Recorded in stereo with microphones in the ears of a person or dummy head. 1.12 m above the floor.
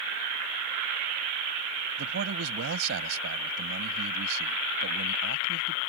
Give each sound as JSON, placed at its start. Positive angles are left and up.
{"t": 2.0, "sound": "a man speaking", "side_deg": -70}